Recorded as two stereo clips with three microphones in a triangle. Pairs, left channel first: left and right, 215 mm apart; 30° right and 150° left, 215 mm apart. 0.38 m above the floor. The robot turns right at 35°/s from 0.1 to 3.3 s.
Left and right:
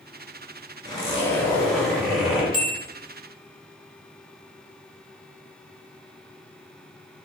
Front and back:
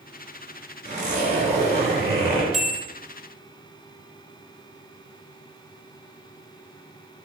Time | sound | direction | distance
0.8 | a zipper | 145° left | 1.1 m
2.5 | a bell | 60° left | 0.5 m